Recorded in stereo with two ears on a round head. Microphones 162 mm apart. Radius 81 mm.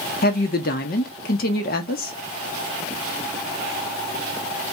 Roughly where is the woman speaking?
Left.